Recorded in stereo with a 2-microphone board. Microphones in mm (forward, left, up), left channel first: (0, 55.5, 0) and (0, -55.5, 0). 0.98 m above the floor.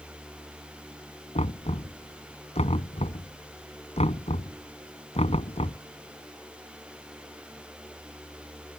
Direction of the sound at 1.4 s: 70° left (ahead or behind).